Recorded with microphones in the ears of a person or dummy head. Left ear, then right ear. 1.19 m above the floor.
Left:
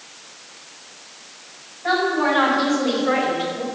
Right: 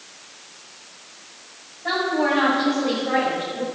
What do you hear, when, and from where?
1.8 s a woman speaking: 35° left (ahead or behind), 5 m; by 3.6 s 50° left (ahead or behind), 3 m